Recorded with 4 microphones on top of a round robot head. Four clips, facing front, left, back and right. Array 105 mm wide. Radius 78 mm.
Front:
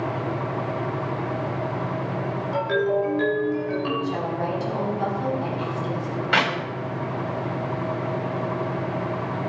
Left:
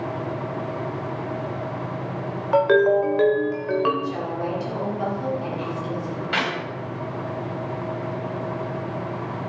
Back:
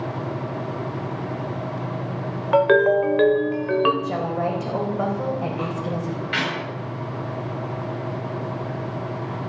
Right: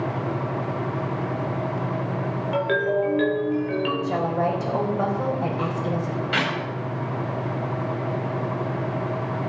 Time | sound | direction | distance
2.5 | a ringtone | 145° left | 1.1 m
4.0 | a woman speaking | 130° right | 3.5 m
6.3 | a clap | 15° left | 3.5 m